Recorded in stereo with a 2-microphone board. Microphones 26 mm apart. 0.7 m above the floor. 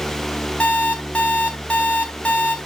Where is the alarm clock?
75° left (ahead or behind), 3.5 m.